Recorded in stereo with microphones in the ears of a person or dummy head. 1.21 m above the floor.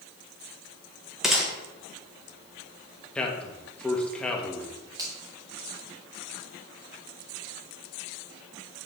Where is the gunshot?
5° right (ahead or behind), 1.3 m.